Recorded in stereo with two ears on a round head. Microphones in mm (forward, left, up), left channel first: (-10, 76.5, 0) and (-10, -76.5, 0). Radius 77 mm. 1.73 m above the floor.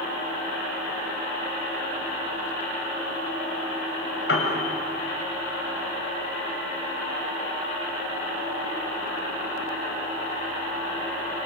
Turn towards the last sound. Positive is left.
turn(degrees=75)  # may be behind; listen again after turning